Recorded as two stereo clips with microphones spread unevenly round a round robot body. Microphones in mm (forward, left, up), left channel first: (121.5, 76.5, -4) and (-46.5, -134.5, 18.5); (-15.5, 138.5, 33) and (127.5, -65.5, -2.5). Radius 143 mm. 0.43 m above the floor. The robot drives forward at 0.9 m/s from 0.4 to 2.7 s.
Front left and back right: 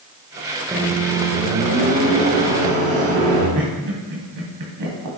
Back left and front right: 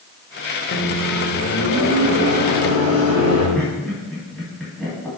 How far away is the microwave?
About 1.5 m.